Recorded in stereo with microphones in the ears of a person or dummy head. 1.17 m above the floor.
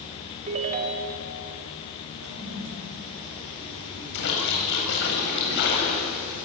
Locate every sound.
0.5 s a ringtone: 35° right (ahead or behind), 2.5 m
2.2 s a toilet flushing: 85° right, 8 m
4.1 s a splash: 65° left (ahead or behind), 8 m